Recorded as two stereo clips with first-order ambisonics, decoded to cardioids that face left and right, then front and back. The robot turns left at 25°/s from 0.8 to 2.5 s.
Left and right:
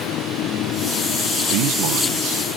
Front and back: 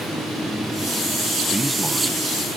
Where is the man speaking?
95° right; by 2.6 s 120° right.